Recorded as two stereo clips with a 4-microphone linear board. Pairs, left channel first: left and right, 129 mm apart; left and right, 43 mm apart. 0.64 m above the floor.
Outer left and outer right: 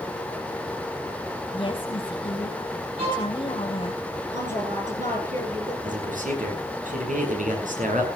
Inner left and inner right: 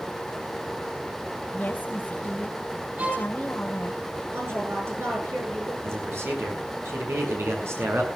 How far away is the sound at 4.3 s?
About 9 m.